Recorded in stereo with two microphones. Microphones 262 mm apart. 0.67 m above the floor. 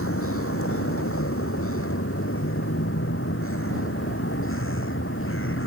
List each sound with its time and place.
0.0 s a vehicle: 55° left (ahead or behind); by 5.7 s 50° left (ahead or behind)